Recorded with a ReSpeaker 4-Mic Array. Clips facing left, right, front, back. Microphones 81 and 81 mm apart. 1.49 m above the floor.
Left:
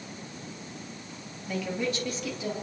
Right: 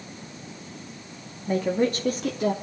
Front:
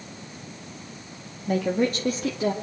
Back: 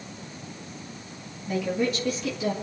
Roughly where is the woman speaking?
Ahead right.